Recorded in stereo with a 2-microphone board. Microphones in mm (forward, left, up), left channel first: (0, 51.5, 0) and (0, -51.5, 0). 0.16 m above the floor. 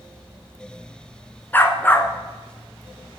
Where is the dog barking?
20° left (ahead or behind), 0.8 m.